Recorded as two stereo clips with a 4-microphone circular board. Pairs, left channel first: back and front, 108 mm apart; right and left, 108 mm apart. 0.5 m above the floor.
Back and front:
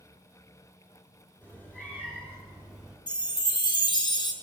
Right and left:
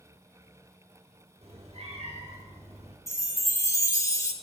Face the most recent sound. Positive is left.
turn(degrees=-145)